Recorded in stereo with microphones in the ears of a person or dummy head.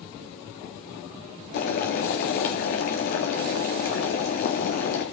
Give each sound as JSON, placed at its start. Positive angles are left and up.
{"t": 1.5, "sound": "boiling", "side_deg": 45, "distance_m": 1.6}